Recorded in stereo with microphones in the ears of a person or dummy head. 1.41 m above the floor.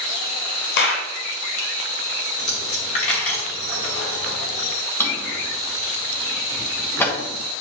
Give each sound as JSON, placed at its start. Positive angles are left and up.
{"t": 0.8, "sound": "a clap", "side_deg": 60, "distance_m": 0.9}
{"t": 2.4, "sound": "a dropped coin", "side_deg": 35, "distance_m": 1.3}
{"t": 5.0, "sound": "a drawer", "side_deg": 10, "distance_m": 1.9}